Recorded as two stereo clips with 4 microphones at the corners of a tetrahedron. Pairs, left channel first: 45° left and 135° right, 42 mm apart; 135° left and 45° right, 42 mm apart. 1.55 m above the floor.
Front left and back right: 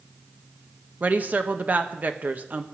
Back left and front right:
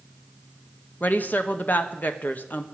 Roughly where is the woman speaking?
Behind.